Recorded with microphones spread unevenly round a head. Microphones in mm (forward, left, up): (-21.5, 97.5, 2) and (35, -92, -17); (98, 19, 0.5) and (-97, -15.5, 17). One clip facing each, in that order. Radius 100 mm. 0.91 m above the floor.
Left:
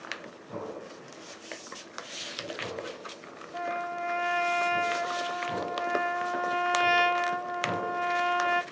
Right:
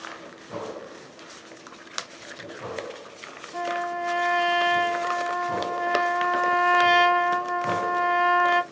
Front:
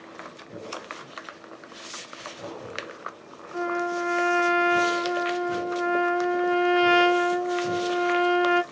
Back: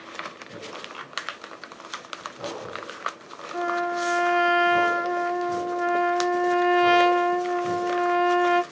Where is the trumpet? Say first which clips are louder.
Right 5 dB, even; 105° right, 2.5 m.